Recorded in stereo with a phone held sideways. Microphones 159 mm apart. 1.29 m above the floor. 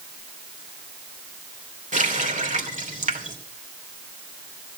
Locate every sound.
1.9 s a running tap: 55° right (ahead or behind), 2.5 m